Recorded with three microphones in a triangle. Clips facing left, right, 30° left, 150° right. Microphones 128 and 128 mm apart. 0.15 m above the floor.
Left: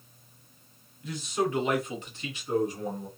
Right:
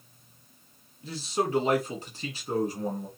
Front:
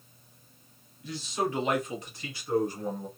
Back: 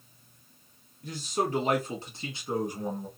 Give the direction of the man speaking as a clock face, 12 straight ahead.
5 o'clock.